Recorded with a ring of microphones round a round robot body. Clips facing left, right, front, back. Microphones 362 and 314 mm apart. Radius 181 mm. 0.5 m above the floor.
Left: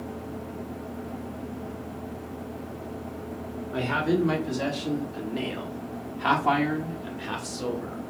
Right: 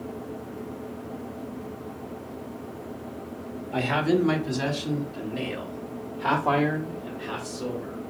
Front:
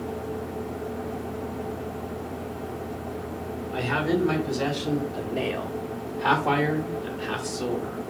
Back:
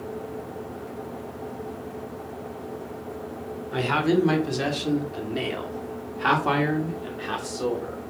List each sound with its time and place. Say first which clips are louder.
3.7 s a man speaking: right 2 dB, back 3 dB; 160° right, 1.9 m; by 8.0 s 90° left, 1.9 m